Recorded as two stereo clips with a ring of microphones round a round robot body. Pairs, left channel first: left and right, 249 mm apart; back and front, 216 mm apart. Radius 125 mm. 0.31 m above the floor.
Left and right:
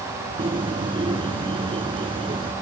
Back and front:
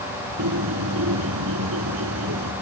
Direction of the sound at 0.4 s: 20° right.